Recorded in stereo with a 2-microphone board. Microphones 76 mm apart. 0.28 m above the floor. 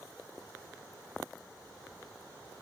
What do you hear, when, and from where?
Only background noise.